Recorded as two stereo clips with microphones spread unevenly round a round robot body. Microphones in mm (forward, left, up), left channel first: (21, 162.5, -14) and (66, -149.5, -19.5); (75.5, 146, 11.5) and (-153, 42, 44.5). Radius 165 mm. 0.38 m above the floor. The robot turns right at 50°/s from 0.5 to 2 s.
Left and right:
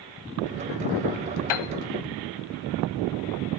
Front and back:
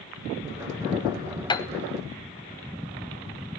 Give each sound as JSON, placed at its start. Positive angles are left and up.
{"t": 1.5, "sound": "a piano", "azimuth_deg": 95, "distance_m": 0.7}